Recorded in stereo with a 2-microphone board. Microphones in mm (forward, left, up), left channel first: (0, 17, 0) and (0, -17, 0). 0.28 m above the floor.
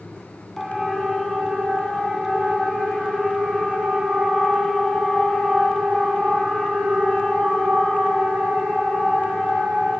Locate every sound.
0.6 s a siren: 5° left (ahead or behind), 2.5 m; by 9.9 s centre (ahead or behind), 13.5 m